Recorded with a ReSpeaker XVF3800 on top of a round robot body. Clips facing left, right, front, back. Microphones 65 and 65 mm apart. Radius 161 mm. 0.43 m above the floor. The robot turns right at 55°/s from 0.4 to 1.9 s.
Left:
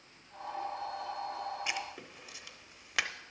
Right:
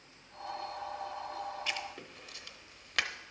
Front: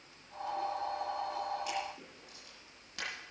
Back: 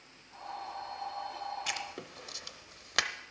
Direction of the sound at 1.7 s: 160° left.